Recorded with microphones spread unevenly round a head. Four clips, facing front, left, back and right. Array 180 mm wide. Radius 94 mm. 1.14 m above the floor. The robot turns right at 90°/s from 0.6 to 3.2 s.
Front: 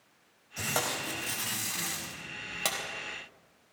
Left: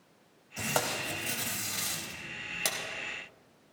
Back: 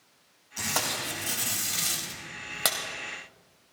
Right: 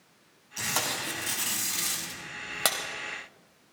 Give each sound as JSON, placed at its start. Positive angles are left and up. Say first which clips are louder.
{"t": 0.6, "sound": "tape being pulled", "louder": "left 1 dB, back 1 dB", "azimuth_deg": 65, "distance_m": 3.5}